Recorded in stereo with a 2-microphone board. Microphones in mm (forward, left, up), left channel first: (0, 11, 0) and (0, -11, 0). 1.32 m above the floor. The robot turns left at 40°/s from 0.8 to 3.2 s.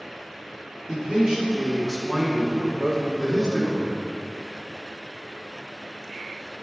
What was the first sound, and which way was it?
A man speaking, 130° right.